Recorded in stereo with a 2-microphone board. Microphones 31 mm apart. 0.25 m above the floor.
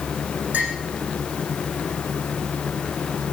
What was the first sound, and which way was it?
A clink, 70° right (ahead or behind).